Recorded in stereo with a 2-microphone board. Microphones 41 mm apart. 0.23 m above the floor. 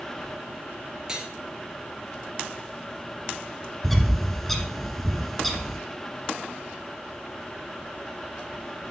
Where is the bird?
5° left (ahead or behind), 1.5 m.